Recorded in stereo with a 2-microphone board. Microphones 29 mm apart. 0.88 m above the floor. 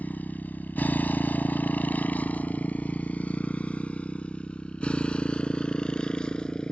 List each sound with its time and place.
0.0 s a motorcycle: 75° left (ahead or behind); by 6.7 s 30° left (ahead or behind)